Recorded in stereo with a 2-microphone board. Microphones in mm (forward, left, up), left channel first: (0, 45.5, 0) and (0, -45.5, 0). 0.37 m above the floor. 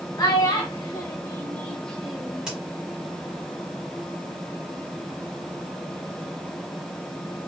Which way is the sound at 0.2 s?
50° left (ahead or behind).